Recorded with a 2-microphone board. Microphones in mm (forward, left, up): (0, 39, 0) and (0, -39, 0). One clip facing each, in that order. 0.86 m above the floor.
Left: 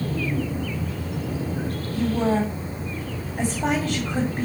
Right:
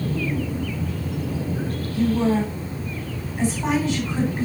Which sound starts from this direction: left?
A woman speaking, at 1.9 s.